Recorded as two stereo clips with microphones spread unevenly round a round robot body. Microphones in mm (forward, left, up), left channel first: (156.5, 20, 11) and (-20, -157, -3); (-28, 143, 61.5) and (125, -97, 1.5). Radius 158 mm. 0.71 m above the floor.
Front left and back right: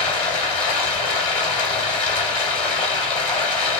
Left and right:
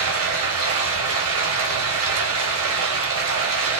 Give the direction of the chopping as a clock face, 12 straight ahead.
I don't hear chopping.